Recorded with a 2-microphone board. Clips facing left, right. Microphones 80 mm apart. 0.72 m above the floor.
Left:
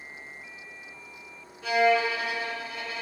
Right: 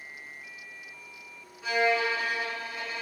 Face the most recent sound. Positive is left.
turn(degrees=-5)  # may be behind; listen again after turning